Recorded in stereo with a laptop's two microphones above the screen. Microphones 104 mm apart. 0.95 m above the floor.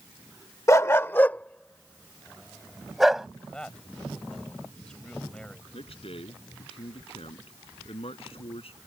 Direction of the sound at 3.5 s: 10° left (ahead or behind).